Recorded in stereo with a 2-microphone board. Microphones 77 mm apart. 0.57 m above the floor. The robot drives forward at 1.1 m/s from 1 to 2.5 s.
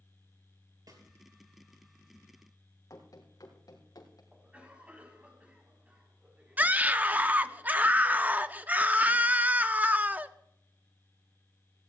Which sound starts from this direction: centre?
A cough, at 4.3 s.